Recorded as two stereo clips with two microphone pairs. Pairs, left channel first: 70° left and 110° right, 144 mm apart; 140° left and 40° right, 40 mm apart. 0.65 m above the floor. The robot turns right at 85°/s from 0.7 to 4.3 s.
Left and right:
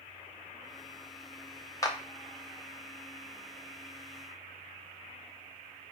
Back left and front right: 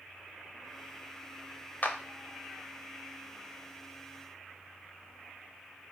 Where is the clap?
125° left, 0.8 m; by 2.0 s 140° left, 0.8 m.